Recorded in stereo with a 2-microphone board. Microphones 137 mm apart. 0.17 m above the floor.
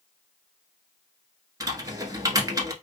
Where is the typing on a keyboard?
25° right (ahead or behind), 1.0 m.